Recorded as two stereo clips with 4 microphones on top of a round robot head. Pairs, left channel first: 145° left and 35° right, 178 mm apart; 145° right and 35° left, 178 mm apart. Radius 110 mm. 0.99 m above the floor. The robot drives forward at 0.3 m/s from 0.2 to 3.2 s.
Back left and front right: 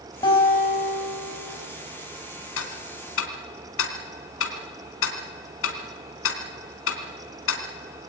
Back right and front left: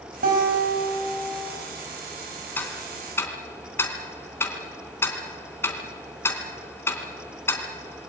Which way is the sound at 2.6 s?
135° left.